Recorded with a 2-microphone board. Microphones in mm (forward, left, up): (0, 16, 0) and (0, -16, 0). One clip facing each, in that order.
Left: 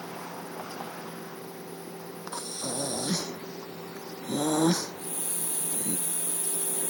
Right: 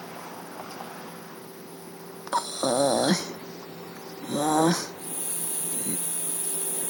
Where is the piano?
No piano in this recording.